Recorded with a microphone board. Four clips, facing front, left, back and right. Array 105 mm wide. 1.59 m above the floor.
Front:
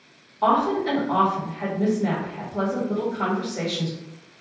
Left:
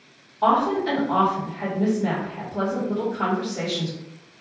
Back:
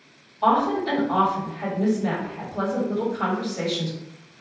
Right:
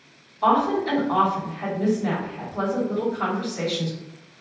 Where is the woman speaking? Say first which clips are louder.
Even, even; 45° left, 1.4 m.